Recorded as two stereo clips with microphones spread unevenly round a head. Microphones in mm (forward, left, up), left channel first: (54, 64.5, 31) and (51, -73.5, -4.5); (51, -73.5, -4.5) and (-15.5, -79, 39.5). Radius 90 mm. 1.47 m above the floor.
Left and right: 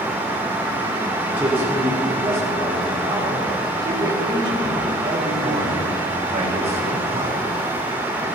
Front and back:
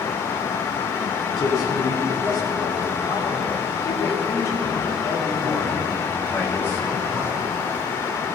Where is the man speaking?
10° right, 6 m; by 7.4 s 55° right, 4.5 m.